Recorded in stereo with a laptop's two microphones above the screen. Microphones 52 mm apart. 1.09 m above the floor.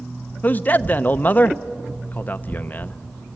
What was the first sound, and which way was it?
A man speaking, 30° left (ahead or behind).